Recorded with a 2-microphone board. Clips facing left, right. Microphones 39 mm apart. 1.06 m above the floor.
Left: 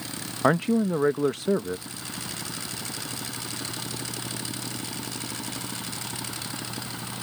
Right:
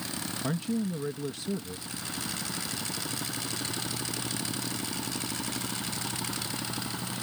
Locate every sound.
0.4 s a man speaking: 70° left (ahead or behind)